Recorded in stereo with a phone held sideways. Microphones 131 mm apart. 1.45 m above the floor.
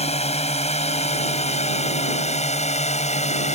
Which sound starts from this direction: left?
A drone, at 0.0 s.